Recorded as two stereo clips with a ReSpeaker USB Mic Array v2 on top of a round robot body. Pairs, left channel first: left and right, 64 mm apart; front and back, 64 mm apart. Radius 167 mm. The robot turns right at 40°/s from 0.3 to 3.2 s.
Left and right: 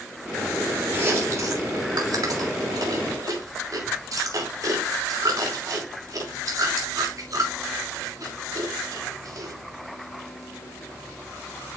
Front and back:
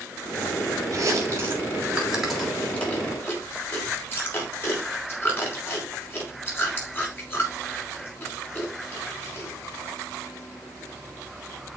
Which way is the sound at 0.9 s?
150° right.